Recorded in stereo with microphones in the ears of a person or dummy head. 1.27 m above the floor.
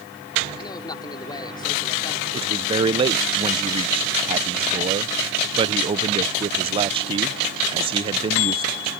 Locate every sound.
0.6 s a man speaking: 25° left (ahead or behind)
2.3 s a man speaking: 25° right (ahead or behind)